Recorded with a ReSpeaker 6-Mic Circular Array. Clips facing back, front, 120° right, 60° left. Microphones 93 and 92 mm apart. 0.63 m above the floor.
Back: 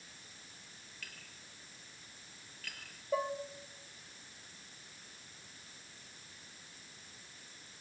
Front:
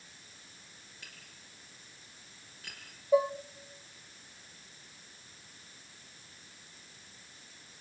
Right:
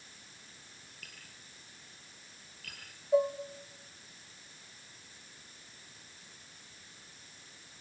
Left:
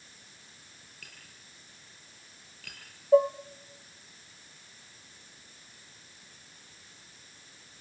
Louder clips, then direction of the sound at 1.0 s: Back 2 dB, left 1 dB; 70° left.